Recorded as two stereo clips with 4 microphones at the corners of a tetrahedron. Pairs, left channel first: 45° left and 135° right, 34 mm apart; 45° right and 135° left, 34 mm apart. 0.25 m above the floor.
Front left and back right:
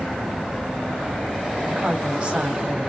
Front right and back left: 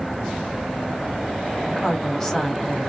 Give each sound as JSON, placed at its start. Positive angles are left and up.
{"t": 1.7, "sound": "a woman speaking", "azimuth_deg": -125, "distance_m": 1.5}